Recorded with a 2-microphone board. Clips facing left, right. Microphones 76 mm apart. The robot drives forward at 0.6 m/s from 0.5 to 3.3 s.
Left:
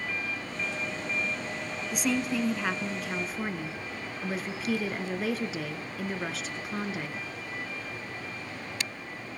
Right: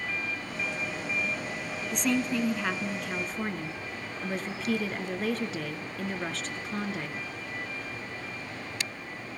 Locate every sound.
1.9 s a woman speaking: 5° left (ahead or behind), 1.2 m